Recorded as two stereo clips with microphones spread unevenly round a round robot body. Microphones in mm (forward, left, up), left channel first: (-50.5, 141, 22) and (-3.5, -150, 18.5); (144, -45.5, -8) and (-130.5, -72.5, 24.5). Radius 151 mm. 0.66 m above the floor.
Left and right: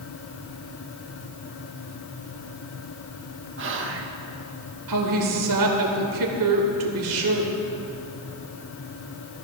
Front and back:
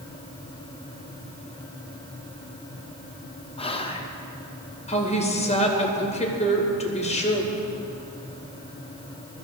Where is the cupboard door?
I don't hear a cupboard door.